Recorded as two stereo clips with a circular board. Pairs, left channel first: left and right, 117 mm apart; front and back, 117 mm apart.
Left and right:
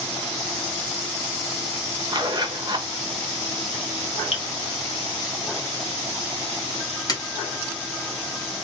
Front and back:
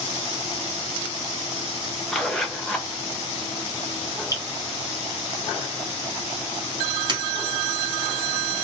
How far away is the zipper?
About 0.6 m.